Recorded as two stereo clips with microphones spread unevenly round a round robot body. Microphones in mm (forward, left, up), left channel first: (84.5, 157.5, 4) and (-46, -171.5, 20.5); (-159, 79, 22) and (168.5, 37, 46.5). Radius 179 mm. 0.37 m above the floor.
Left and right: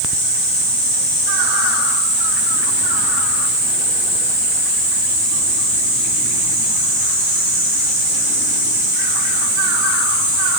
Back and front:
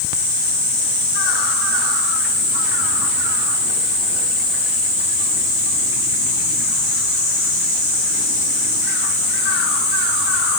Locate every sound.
Only background noise.